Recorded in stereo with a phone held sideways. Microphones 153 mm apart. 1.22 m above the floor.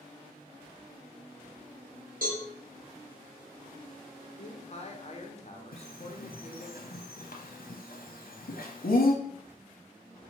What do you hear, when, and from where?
2.2 s a cowbell: 65° right (ahead or behind), 0.9 m
4.4 s a man speaking: 45° left (ahead or behind), 0.5 m
5.7 s a bird: 75° left (ahead or behind), 0.6 m